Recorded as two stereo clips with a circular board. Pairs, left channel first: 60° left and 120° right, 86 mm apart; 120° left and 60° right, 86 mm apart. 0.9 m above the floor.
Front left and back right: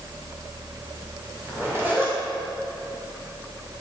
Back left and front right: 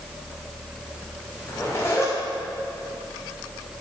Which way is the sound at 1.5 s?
Straight behind.